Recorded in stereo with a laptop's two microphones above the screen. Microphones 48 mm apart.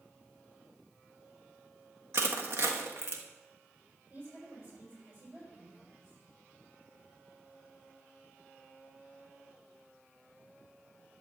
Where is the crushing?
55° right (ahead or behind), 1.5 m.